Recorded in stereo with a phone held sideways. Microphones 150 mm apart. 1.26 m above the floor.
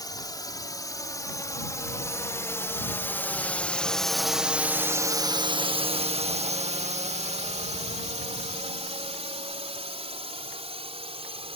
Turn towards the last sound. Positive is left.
turn(degrees=-40)  # may be behind; listen again after turning